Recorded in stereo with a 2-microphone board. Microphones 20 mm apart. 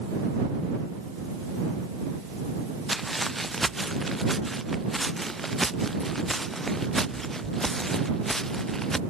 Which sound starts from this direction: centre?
Footsteps, at 2.9 s.